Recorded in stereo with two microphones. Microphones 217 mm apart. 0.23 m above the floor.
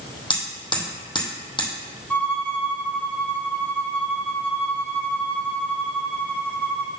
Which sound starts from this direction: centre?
A violin, at 2.1 s.